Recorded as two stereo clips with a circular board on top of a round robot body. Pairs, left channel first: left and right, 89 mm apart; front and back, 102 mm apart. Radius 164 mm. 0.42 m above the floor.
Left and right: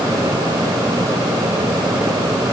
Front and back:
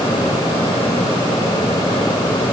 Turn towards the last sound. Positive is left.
No sound to turn to.